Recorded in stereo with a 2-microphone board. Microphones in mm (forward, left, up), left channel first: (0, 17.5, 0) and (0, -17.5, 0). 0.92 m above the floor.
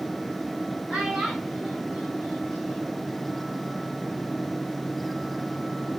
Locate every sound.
0.9 s a child speaking: 30° right (ahead or behind), 7 m; by 3.1 s 15° right (ahead or behind), 6.5 m